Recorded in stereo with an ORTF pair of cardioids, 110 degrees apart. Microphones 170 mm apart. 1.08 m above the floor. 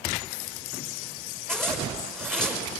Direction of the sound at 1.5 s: 5° left.